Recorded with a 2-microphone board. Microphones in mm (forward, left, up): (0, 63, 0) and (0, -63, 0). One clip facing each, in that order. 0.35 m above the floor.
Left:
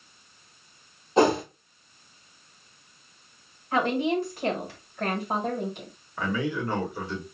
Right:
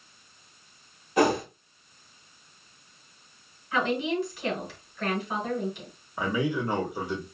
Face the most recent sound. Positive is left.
turn(degrees=-15)  # may be behind; listen again after turning